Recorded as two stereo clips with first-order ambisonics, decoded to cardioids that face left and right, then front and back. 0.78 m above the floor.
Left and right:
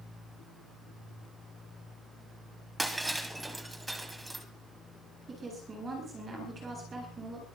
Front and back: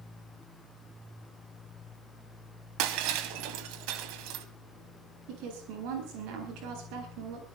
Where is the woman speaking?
160° right, 9 m.